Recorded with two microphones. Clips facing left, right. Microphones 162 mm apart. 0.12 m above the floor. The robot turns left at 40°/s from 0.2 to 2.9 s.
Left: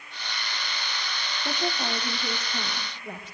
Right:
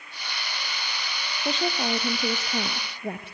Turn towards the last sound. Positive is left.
turn(degrees=-80)